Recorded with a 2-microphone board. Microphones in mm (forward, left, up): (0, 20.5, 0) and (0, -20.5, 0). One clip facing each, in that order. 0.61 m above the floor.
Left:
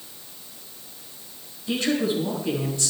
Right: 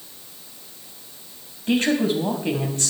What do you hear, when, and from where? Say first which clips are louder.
1.7 s a woman speaking: right 4 dB; 50° right (ahead or behind), 4.5 m